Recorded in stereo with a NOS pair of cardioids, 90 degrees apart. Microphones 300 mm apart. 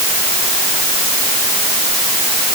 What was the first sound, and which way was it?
Only background noise.